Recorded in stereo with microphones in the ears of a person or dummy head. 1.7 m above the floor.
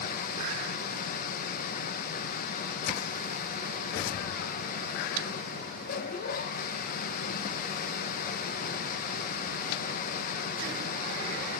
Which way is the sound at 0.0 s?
55° left (ahead or behind).